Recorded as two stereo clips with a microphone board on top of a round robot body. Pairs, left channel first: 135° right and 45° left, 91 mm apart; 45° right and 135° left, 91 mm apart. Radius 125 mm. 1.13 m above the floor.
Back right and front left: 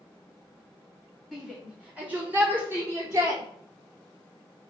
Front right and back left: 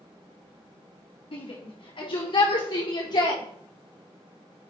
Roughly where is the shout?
Ahead right.